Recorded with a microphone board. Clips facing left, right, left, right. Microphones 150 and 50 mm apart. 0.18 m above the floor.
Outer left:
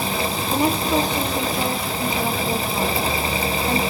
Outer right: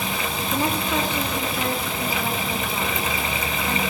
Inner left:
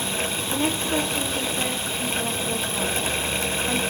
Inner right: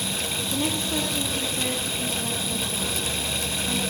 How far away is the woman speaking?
About 5.5 m.